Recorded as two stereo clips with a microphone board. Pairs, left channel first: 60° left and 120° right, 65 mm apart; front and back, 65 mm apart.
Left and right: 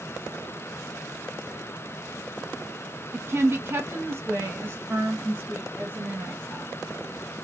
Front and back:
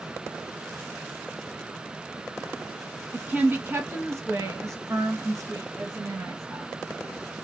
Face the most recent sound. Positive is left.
turn(degrees=180)